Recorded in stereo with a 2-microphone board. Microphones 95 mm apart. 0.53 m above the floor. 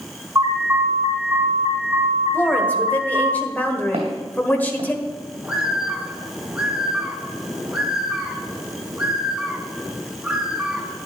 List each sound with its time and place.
0.3 s an alarm: 25° right (ahead or behind), 5 m
2.3 s a woman speaking: 20° left (ahead or behind), 1.6 m
3.9 s footsteps: 75° right (ahead or behind), 2.5 m
5.4 s a bird: 5° right (ahead or behind), 1.6 m